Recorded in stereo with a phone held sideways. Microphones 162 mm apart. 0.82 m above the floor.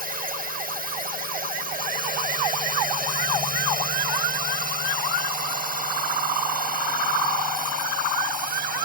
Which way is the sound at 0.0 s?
65° right (ahead or behind).